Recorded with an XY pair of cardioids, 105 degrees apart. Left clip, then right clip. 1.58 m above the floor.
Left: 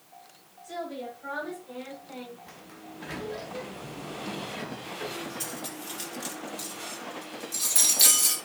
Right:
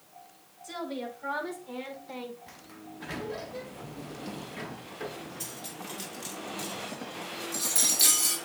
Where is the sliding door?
10° right, 1.0 m.